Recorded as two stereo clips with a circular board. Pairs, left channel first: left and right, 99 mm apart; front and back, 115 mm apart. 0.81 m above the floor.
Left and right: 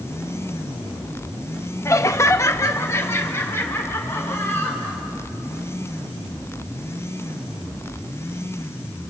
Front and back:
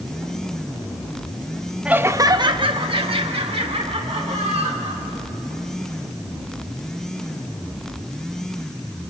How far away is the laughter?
About 0.7 m.